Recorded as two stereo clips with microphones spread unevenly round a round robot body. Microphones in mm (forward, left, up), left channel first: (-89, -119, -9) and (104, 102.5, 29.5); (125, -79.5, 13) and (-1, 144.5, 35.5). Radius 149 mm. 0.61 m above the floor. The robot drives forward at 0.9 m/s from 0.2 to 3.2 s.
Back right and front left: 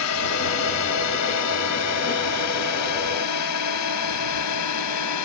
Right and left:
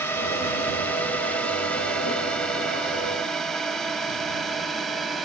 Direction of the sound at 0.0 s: 140° right.